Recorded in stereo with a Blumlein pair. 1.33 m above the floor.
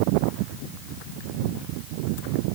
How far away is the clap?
I don't hear a clap.